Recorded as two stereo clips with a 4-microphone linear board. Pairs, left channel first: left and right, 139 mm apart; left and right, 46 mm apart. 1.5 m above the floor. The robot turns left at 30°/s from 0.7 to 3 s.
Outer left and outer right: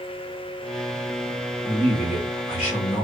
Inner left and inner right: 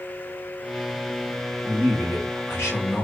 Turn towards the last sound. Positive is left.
turn(degrees=120)